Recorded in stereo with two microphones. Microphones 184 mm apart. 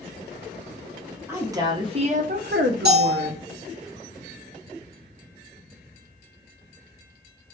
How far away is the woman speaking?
About 0.9 m.